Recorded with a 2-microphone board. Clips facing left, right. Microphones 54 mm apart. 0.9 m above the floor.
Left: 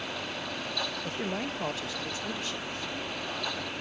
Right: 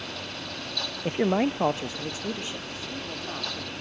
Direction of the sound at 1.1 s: 40° right (ahead or behind).